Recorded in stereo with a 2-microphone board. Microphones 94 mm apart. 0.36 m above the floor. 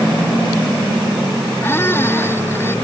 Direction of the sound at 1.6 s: 20° left (ahead or behind).